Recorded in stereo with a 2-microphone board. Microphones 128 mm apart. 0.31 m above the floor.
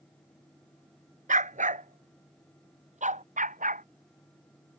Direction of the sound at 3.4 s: 85° right.